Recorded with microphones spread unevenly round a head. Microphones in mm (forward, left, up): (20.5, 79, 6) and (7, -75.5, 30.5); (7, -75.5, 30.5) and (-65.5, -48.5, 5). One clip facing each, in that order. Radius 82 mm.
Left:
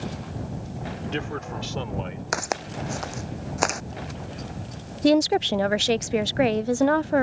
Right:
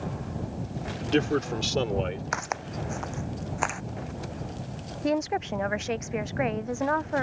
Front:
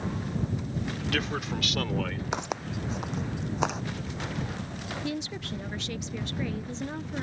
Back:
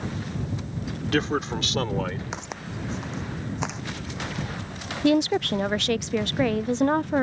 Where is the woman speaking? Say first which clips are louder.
Left 8 dB, back 17 dB; 135° left.